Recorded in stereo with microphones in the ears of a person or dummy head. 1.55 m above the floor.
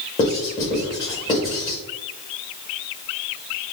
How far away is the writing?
About 1.2 m.